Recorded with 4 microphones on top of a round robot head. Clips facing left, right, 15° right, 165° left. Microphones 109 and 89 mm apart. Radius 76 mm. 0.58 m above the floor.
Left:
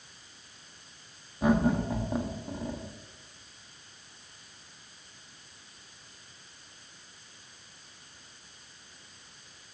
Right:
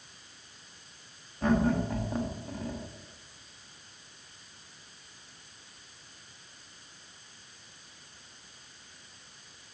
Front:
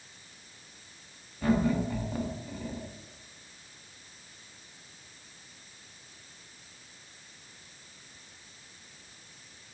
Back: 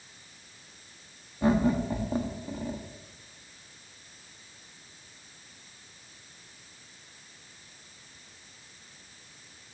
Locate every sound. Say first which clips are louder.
1.4 s laughter: left 1 dB, back 2 dB; 150° left, 1.3 m